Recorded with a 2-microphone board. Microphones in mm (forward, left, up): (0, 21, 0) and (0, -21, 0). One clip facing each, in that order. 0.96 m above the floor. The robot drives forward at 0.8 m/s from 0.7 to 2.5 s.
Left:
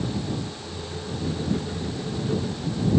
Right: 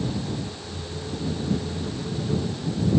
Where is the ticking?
I don't hear ticking.